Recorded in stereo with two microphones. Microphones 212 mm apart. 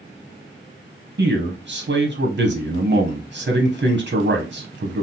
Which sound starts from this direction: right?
A man speaking, at 1.2 s.